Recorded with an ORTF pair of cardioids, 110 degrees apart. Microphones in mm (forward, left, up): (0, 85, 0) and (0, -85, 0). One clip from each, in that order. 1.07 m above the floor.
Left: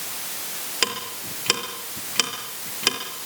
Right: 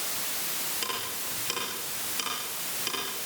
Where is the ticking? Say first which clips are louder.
Left 7 dB; 65° left, 6 m.